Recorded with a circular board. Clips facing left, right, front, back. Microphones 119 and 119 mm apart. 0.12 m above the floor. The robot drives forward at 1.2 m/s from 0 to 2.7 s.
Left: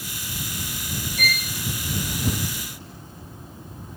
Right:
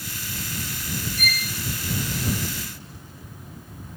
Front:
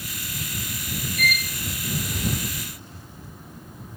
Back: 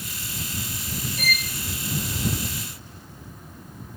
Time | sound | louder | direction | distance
1.2 | a violin | left 2 dB, front 3 dB | 115° left | 8.5 m